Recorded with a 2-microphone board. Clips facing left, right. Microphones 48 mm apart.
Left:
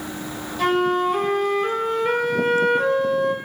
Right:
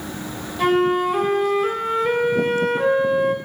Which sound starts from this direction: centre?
A flute, at 0.6 s.